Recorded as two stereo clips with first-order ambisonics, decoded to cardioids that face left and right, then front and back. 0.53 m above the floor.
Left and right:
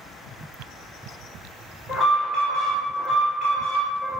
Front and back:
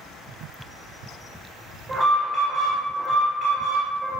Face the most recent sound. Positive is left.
turn(degrees=150)